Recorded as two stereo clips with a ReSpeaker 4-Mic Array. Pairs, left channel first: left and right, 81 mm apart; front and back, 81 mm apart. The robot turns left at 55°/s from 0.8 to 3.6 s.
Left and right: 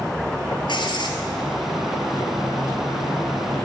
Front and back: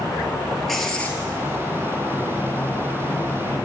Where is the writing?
90° left, 1.2 m; by 1.2 s 65° left, 1.2 m.